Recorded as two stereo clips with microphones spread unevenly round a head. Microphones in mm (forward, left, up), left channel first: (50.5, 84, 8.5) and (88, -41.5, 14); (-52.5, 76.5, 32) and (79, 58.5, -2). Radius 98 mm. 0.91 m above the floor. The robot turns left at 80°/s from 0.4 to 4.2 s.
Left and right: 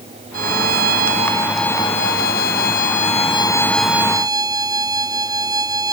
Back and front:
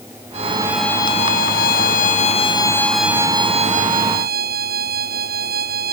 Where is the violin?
70° right; by 5.9 s 15° right.